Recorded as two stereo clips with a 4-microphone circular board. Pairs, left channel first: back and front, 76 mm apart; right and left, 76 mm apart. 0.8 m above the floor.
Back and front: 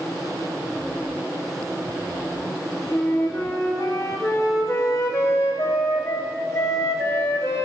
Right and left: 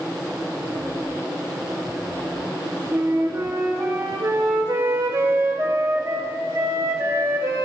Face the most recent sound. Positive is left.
turn(degrees=140)